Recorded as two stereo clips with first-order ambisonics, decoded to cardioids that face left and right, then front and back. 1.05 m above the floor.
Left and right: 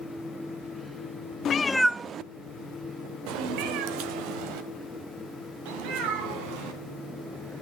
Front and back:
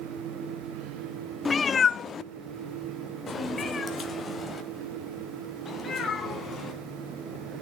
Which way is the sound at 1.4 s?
70° left.